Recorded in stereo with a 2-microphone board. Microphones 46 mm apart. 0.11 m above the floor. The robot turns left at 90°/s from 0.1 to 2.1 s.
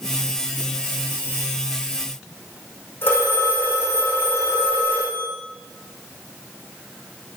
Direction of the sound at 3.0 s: 45° left (ahead or behind).